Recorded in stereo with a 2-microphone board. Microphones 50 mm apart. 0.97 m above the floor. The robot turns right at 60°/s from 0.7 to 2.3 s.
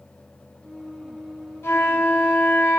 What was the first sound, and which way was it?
A flute, 95° left.